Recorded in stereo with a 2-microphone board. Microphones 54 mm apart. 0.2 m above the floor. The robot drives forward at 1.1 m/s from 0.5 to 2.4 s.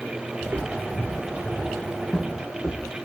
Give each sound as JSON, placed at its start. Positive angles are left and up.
{"t": 0.4, "sound": "footsteps", "side_deg": -40, "distance_m": 2.5}